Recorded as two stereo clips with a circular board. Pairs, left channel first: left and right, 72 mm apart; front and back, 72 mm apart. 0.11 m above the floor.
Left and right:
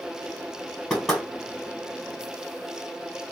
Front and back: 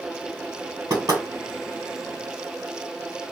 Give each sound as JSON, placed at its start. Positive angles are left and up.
{"t": 0.9, "sound": "knocking", "azimuth_deg": 175, "distance_m": 2.0}